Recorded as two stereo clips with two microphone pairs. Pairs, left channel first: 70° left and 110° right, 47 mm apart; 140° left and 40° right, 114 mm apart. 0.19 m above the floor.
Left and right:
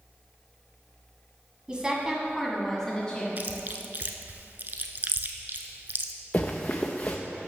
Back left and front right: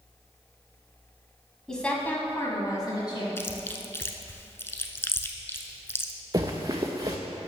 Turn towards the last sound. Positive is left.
turn(degrees=15)